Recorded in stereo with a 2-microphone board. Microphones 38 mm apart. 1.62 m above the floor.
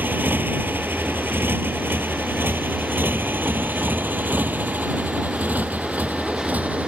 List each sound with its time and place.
0.0 s a motorcycle: 65° right (ahead or behind); by 6.9 s 45° right (ahead or behind)